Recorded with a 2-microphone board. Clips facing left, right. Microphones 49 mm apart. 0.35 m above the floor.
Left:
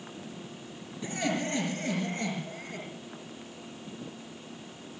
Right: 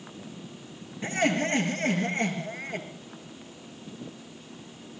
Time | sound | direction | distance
1.0 | laughter | 50° right (ahead or behind) | 5 m